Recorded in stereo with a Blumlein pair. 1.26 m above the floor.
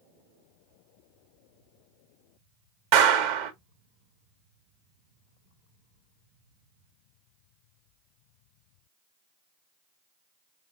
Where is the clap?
45° right, 0.9 m.